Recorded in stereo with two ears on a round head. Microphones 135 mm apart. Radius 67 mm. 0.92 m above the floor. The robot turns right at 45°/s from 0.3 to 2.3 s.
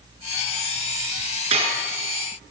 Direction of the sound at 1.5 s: 40° right (ahead or behind).